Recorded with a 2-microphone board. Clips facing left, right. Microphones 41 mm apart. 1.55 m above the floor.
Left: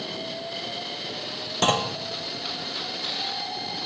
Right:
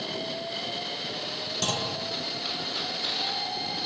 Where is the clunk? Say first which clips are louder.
Left 8 dB; 40° left (ahead or behind), 0.9 m.